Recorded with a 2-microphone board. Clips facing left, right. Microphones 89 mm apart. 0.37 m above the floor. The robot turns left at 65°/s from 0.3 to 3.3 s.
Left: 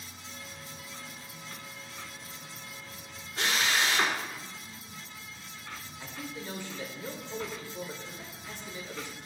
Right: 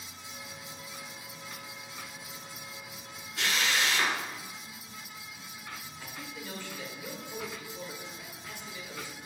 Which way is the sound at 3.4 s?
35° left (ahead or behind).